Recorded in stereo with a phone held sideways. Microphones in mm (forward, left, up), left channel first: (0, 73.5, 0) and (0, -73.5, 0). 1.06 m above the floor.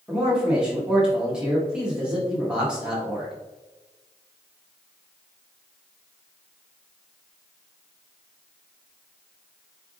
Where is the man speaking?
5° right (ahead or behind), 1.3 m.